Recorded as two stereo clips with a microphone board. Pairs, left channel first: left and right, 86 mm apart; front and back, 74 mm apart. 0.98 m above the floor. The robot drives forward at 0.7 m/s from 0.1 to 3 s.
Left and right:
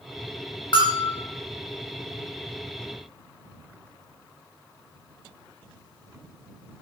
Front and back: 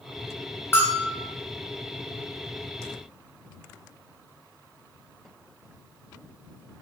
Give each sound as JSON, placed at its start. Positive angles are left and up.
{"t": 0.7, "sound": "a bell", "azimuth_deg": 60, "distance_m": 1.6}